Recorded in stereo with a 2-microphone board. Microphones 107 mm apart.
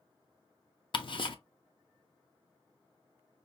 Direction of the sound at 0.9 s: 50° left (ahead or behind).